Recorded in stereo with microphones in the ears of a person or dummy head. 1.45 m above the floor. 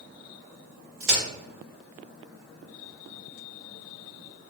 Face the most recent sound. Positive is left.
turn(degrees=-50)  # may be behind; listen again after turning